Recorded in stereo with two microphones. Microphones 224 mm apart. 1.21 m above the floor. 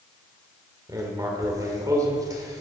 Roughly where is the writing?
Centre.